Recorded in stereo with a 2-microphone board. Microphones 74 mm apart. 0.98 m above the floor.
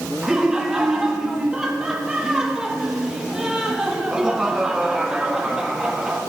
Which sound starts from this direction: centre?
Laughter, at 0.2 s.